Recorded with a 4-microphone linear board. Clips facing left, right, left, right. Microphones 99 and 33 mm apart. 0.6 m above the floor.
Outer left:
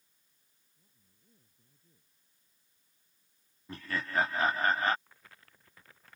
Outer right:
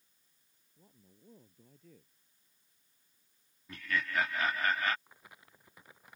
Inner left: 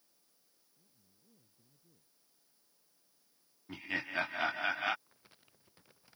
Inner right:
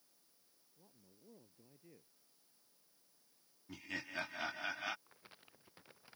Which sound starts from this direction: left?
Laughter, at 3.7 s.